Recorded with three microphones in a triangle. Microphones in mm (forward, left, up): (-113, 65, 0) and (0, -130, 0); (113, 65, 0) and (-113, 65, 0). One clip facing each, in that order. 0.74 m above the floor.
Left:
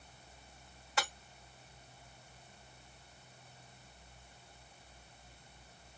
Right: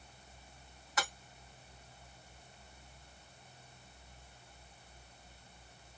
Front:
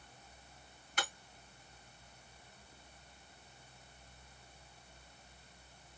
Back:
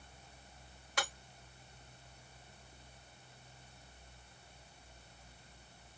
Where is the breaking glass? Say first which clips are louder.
Left 1 dB, back 2 dB; straight behind, 2 m.